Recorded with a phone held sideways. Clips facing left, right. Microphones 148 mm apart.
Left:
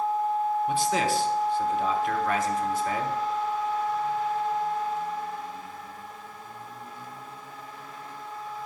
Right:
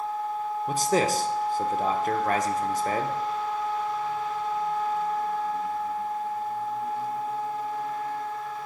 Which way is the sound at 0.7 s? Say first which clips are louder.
Right 1 dB; 40° right (ahead or behind).